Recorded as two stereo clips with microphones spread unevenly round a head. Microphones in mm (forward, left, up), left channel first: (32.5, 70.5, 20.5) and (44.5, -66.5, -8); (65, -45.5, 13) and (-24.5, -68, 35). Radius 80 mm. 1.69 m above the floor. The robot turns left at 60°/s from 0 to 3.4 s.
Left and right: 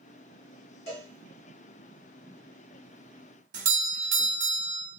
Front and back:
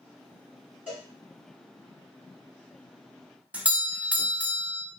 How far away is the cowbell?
About 1.2 m.